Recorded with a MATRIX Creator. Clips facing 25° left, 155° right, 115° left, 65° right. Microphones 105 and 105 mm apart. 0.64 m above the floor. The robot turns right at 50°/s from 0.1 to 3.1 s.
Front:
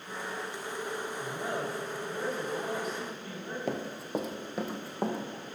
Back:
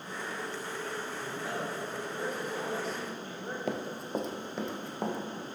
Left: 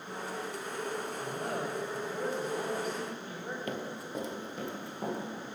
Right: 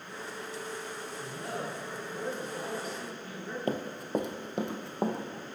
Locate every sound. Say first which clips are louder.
1.2 s a man speaking: front 3 dB, right 1 dB; 60° left, 4 m; by 3.6 s 160° left, 4 m
3.7 s running footsteps: front 1 dB, right 6 dB; 65° right, 0.7 m; by 5.2 s 60° right, 1.9 m